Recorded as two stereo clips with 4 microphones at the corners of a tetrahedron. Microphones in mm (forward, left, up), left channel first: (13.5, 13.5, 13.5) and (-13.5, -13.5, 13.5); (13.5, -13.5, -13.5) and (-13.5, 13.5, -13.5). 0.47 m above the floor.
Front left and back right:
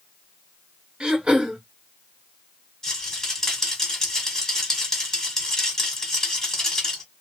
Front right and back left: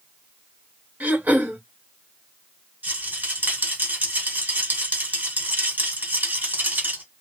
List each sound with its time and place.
1.0 s throat clearing: 165° left, 1.1 m
2.8 s a rattle: 120° left, 1.3 m